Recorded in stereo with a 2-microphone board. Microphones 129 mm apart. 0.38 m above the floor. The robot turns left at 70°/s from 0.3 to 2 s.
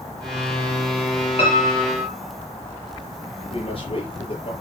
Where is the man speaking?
45° left (ahead or behind), 6.5 m.